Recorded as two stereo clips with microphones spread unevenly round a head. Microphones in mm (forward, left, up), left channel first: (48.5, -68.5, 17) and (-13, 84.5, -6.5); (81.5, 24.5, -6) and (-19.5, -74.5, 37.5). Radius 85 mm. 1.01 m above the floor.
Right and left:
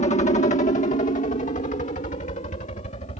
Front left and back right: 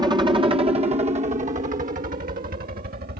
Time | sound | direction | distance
0.0 | a helicopter | 70° right | ?